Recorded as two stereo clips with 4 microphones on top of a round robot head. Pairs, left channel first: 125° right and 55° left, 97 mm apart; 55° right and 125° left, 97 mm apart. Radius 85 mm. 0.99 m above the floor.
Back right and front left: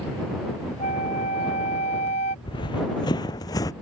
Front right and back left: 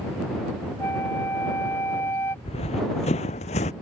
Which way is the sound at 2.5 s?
80° right.